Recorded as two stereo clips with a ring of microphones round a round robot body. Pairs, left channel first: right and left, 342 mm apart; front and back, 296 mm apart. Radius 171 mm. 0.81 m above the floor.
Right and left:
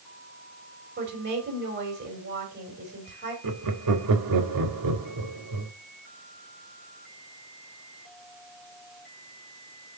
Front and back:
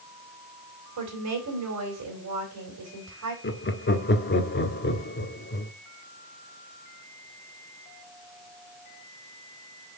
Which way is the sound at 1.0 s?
150° left.